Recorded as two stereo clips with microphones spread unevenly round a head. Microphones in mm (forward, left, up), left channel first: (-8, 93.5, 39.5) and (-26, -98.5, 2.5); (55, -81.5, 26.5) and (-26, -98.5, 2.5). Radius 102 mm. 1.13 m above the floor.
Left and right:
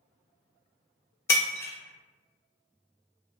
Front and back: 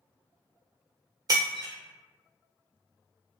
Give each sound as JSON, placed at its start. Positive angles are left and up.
{"t": 1.3, "sound": "breaking glass", "azimuth_deg": 135, "distance_m": 0.8}